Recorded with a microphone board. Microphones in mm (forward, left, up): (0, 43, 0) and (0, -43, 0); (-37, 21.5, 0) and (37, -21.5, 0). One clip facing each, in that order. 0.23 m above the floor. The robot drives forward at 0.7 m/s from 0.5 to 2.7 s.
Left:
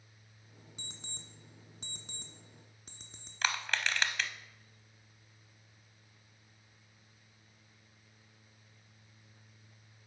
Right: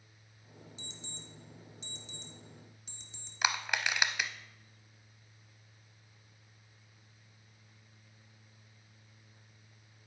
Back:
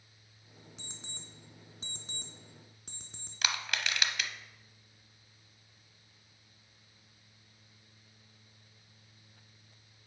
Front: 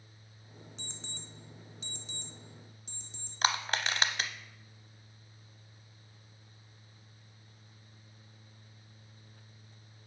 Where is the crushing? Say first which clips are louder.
Right 1 dB, front 5 dB; 20° right, 0.6 m.